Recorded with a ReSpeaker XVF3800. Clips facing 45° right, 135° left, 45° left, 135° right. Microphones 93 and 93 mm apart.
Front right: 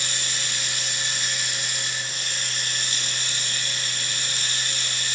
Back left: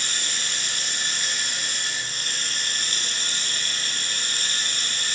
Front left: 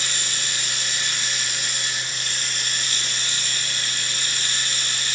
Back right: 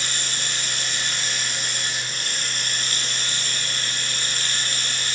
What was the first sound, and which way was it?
Running water, straight behind.